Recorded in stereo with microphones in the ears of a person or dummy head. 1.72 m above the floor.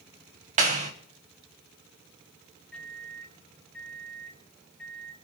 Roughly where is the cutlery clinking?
I don't hear cutlery clinking.